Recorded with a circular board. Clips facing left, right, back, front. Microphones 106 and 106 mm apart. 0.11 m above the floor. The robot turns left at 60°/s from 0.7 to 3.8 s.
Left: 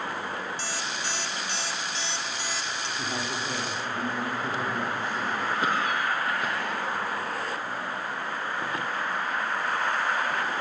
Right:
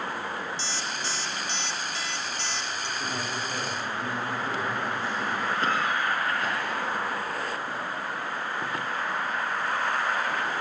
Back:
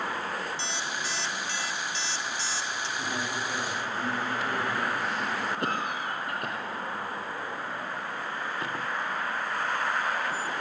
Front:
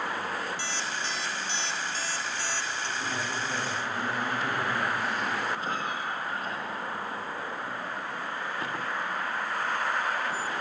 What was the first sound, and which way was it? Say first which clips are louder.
An alarm clock: even, even; 115° left.